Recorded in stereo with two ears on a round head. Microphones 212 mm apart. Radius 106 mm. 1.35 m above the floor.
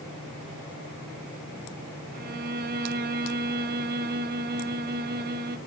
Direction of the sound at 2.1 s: 45° right (ahead or behind).